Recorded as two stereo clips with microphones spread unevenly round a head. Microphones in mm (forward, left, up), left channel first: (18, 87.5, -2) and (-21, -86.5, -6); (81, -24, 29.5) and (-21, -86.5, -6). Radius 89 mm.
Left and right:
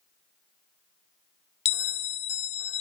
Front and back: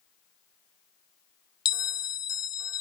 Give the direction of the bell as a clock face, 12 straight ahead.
11 o'clock.